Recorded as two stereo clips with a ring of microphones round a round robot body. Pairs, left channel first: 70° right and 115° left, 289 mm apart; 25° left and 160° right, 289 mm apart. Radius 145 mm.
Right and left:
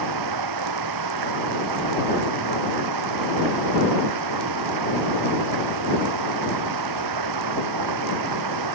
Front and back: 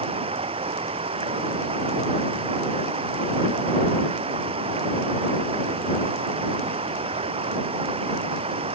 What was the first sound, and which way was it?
Running water, 130° left.